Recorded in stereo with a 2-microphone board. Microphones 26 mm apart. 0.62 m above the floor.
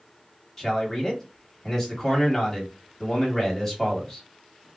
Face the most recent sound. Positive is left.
turn(degrees=5)  # may be behind; listen again after turning